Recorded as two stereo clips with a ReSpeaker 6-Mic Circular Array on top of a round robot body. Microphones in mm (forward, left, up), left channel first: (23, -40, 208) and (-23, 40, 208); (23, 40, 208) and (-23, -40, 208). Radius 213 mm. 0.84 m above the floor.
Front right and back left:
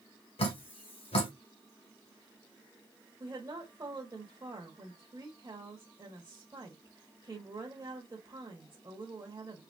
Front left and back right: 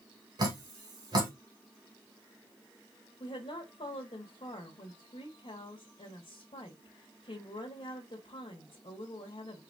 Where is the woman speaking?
70° left, 1.7 m.